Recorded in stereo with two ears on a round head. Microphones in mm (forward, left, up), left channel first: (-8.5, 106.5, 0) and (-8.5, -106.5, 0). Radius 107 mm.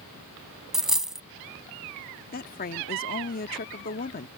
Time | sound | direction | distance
0.7 | a dropped coin | centre (ahead or behind) | ?
2.3 | a woman speaking | 35° left (ahead or behind) | ?